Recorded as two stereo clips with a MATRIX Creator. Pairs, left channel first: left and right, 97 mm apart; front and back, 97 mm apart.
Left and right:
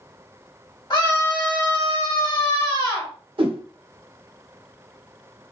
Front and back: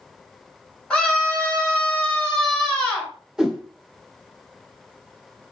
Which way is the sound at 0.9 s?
75° left.